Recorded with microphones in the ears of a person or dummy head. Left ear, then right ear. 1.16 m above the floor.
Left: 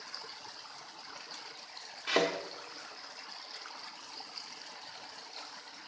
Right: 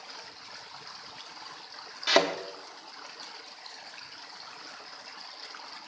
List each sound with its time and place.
2.1 s a thud: 30° right (ahead or behind), 1.0 m